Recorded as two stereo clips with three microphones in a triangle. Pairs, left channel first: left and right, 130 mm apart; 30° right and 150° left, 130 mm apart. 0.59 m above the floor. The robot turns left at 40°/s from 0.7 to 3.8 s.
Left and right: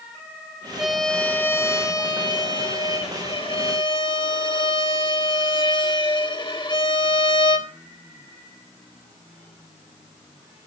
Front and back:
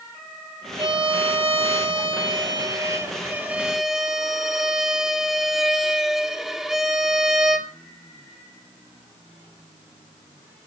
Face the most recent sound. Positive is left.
turn(degrees=65)